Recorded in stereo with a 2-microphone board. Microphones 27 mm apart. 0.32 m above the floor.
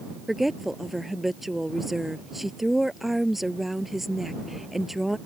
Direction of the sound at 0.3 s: 5° right (ahead or behind).